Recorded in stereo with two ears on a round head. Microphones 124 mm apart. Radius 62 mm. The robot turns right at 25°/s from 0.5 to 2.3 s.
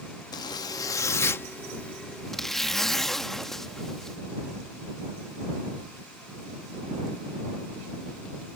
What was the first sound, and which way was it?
A zipper, 130° left.